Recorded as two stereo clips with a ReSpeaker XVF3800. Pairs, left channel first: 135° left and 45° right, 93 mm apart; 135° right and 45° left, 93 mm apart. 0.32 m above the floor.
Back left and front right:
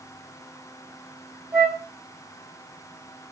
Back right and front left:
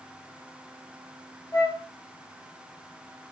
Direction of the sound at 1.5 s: 100° right.